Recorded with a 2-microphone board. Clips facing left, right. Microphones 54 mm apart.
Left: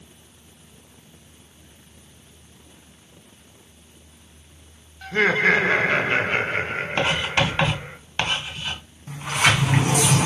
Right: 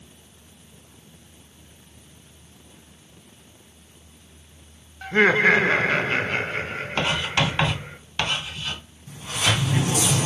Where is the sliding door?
60° left (ahead or behind), 1.7 m.